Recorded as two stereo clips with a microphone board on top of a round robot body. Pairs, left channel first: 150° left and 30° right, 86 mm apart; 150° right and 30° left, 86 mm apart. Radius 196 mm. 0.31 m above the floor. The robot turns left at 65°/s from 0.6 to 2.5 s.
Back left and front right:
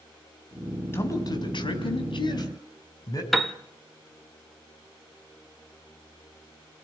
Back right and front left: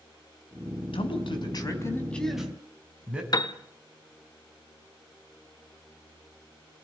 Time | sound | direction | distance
0.9 | a man speaking | 150° right | 4.5 m
3.3 | a piano | 120° right | 1.6 m